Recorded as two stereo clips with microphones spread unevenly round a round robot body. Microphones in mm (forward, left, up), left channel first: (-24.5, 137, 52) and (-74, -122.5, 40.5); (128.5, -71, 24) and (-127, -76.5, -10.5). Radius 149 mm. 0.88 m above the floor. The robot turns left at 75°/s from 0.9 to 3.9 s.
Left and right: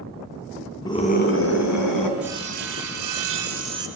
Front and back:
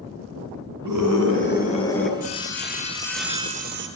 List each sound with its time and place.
0.8 s a scream: 155° left, 8.5 m; by 2.1 s 65° left, 8.5 m
2.2 s sawing: 15° right, 5.5 m; by 3.9 s 140° right, 5.5 m